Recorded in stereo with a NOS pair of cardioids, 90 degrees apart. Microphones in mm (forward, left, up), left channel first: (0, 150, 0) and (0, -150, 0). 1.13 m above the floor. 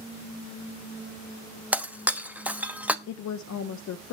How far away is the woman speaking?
About 0.7 m.